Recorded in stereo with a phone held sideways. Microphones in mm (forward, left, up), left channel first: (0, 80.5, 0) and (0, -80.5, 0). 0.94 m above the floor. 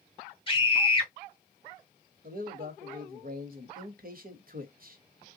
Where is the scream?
30° left (ahead or behind), 1.8 m.